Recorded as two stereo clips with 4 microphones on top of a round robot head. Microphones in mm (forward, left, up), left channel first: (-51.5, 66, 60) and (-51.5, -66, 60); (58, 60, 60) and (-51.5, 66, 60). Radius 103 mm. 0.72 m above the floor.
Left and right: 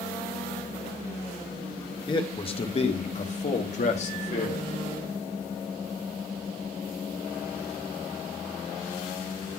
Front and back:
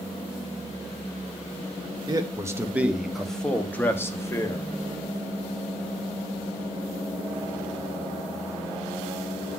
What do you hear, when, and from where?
2.1 s a man speaking: 135° left, 1.1 m; by 4.7 s 55° left, 1.8 m